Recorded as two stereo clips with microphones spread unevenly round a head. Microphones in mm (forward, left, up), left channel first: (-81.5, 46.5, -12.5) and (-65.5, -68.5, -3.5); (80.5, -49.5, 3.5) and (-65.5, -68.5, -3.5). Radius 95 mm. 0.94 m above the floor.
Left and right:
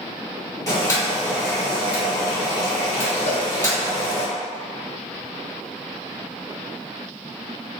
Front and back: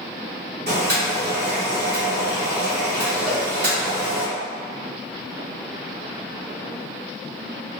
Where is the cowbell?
95° left, 1.0 m.